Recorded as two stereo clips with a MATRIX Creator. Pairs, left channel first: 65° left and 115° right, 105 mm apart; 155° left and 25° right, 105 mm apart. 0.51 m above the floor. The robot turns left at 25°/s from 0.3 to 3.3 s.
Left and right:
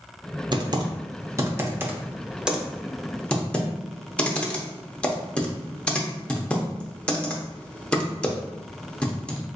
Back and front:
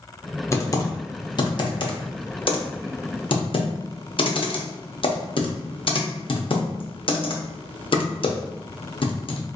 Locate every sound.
0.5 s typing on a keyboard: 145° right, 0.6 m; by 9.4 s 145° left, 0.6 m